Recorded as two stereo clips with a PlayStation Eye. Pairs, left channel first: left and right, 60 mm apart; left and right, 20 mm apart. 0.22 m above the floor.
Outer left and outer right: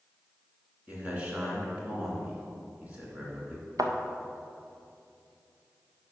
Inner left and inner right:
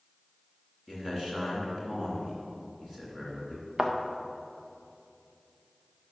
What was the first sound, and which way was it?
A man speaking, 25° right (ahead or behind).